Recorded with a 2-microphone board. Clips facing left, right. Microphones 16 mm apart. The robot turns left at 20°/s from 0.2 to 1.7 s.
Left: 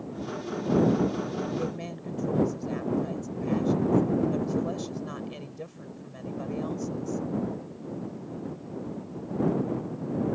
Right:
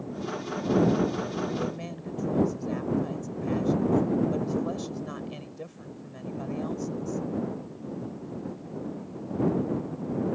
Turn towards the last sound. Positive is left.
turn(degrees=5)  # may be behind; listen again after turning